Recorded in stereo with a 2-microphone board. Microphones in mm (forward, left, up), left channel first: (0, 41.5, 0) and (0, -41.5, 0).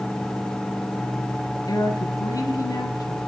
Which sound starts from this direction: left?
A woman speaking, at 1.7 s.